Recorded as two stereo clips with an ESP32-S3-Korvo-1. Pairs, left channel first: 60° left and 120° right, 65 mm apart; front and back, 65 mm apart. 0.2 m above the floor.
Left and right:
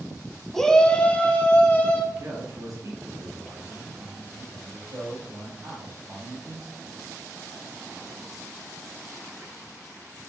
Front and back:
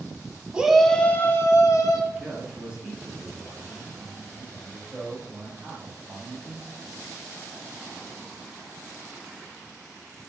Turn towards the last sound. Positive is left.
turn(degrees=-110)